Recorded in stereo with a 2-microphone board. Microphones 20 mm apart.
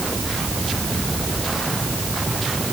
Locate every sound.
Only background noise.